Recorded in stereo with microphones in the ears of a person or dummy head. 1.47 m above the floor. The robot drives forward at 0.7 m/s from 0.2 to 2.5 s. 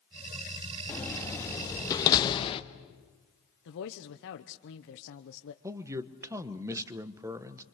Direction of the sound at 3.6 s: 60° left (ahead or behind).